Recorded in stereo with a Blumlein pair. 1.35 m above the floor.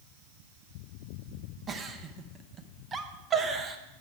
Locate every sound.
1.7 s a giggle: 20° right, 0.9 m